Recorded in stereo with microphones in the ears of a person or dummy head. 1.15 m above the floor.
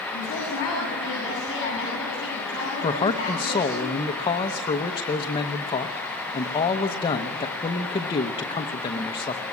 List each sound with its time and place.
0.1 s a woman speaking: 25° left (ahead or behind), 7.5 m
2.8 s a man speaking: 20° left (ahead or behind), 0.8 m